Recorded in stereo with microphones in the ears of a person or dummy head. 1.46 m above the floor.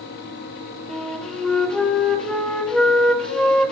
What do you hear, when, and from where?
0.9 s a flute: 5° left (ahead or behind), 1.3 m